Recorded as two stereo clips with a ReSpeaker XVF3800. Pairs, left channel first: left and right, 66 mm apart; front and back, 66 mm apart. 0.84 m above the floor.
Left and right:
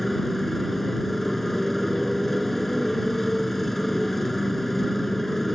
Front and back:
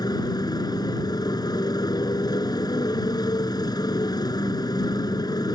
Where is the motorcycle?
Straight ahead.